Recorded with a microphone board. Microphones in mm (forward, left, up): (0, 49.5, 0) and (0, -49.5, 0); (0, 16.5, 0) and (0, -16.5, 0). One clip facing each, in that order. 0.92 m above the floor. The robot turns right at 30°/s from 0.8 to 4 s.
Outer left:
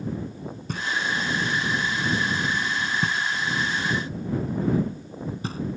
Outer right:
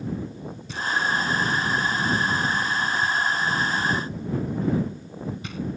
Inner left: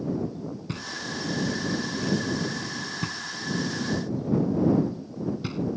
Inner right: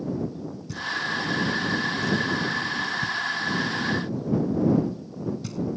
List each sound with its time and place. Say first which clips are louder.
0.7 s knocking: outer right 3 dB, inner right 9 dB; 50° left (ahead or behind); by 5.6 s 35° left (ahead or behind)